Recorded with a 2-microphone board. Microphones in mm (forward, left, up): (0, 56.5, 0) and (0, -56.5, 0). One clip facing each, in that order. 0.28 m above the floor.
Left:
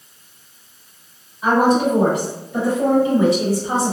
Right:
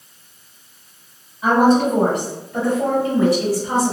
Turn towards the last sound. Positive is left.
turn(degrees=30)  # may be behind; listen again after turning